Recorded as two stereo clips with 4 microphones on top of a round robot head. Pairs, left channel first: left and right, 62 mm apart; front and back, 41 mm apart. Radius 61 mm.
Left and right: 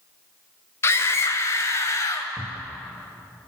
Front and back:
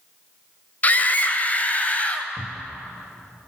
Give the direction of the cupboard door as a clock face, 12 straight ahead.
7 o'clock.